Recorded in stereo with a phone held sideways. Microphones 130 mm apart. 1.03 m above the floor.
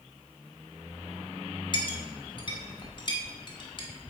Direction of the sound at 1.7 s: 35° left (ahead or behind).